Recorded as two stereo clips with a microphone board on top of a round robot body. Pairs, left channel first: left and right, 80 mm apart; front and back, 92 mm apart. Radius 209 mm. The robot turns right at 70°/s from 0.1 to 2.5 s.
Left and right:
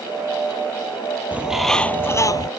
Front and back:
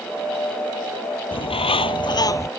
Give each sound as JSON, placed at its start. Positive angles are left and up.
{"t": 1.3, "sound": "a bird", "azimuth_deg": -20}